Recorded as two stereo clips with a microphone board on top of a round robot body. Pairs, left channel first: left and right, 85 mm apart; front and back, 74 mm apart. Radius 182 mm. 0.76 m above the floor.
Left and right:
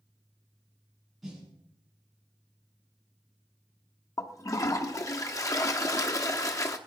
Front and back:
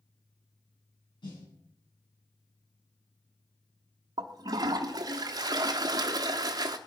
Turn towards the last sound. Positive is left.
turn(degrees=145)